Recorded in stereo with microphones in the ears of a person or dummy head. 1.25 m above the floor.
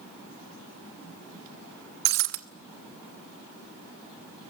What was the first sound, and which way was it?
Breaking glass, 55° right (ahead or behind).